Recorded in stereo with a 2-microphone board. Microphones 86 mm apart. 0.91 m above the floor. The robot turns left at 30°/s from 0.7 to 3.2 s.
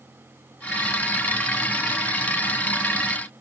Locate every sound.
Only background noise.